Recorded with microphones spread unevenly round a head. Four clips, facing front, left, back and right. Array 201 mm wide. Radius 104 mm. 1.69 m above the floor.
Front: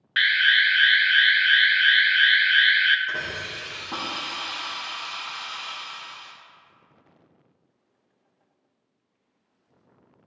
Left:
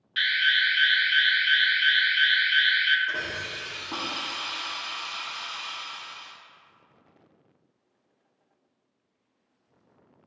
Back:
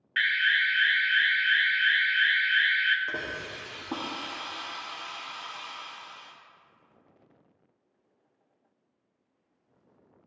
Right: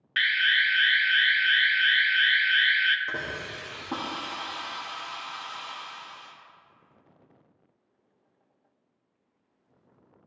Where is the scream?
No scream in this recording.